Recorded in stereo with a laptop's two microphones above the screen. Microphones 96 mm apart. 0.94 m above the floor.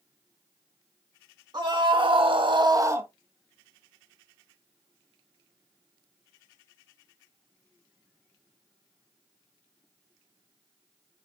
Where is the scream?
50° right (ahead or behind), 1.5 m; by 3.1 s 25° right (ahead or behind), 1.1 m.